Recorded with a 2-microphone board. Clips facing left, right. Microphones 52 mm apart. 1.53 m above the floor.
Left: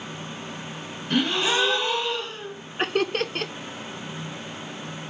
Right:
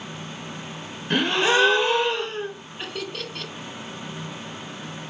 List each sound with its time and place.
1.1 s a gasp: 50° right (ahead or behind), 1.2 m
2.8 s laughter: 50° left (ahead or behind), 0.5 m